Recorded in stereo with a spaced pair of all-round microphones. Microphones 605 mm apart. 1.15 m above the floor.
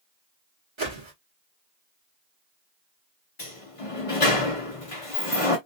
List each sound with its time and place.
0.8 s a whoosh: 50° right (ahead or behind), 1.8 m
3.4 s a sliding door: 60° left (ahead or behind), 1.7 m